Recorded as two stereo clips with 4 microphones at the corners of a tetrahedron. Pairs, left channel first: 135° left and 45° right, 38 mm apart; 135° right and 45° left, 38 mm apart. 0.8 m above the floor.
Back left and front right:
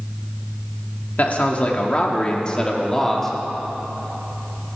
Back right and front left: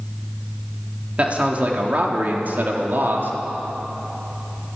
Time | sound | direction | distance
1.2 | a man speaking | 95° left | 2 m